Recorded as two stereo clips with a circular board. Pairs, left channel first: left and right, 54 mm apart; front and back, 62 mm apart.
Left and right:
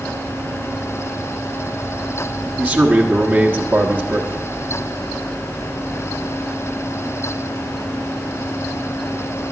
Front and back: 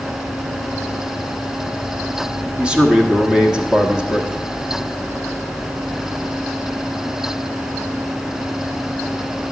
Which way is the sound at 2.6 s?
120° right.